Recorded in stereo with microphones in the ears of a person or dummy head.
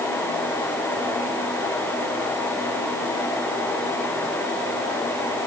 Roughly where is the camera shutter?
No camera shutter in this recording.